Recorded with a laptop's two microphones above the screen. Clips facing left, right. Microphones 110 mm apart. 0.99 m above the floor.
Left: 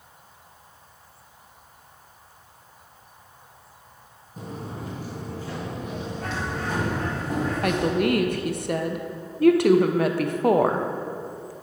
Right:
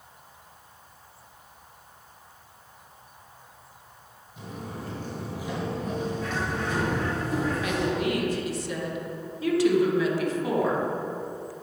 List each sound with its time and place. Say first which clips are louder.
4.4 s footsteps: left 2 dB; 40° left (ahead or behind), 1.4 m; by 7.2 s 65° right (ahead or behind), 2.5 m
6.2 s a bird: even; 60° left (ahead or behind), 1.9 m
7.6 s a woman speaking: left 4 dB; 55° left (ahead or behind), 0.6 m